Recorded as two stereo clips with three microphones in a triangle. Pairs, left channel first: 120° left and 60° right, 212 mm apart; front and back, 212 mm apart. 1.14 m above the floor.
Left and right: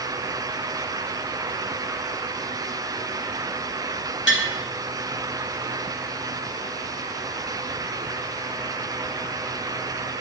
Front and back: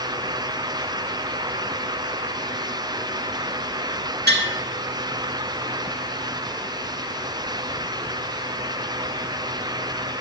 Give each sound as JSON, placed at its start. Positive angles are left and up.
{"t": 4.3, "sound": "tapping", "azimuth_deg": 145, "distance_m": 2.0}